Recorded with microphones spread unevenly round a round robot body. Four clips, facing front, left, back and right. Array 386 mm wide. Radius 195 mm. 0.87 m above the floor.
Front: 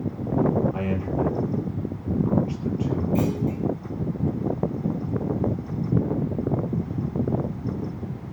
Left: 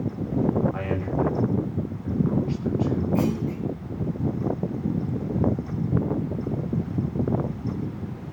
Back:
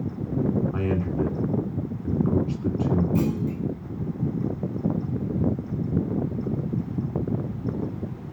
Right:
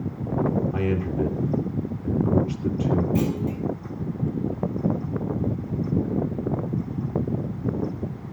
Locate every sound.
0.7 s a man speaking: 140° right, 3.5 m
3.1 s a clunk: 140° right, 3.5 m